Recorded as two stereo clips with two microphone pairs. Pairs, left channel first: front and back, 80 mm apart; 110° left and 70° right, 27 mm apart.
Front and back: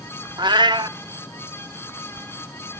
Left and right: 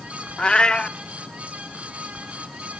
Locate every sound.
0.4 s a cat meowing: 160° left, 0.7 m